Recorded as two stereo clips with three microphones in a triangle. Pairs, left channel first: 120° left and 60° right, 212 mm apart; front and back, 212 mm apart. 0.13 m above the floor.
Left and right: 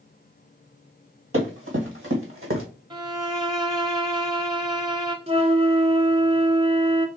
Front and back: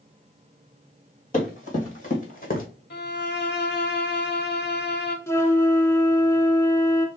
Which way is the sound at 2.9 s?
5° left.